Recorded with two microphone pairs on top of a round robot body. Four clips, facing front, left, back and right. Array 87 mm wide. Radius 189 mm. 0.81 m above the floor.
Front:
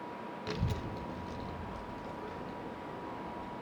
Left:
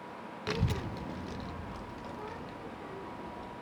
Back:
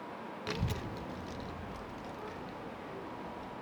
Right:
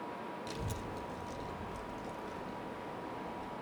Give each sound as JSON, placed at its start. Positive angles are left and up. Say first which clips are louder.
{"t": 0.5, "sound": "a child speaking", "louder": "left 6 dB, even", "azimuth_deg": 100, "distance_m": 0.6}